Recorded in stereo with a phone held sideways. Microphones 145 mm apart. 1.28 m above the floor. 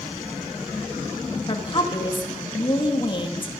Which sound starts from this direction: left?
A woman speaking, at 1.5 s.